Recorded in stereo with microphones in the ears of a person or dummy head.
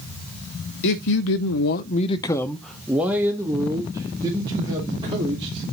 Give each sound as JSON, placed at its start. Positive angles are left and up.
{"t": 0.8, "sound": "a man speaking", "side_deg": 60, "distance_m": 0.9}